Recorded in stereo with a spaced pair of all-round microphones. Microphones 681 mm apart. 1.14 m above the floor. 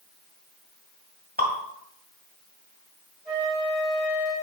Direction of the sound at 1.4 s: 15° right (ahead or behind).